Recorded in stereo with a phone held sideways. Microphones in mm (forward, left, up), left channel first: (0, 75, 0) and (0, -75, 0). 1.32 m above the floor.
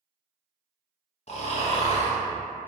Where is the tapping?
I don't hear tapping.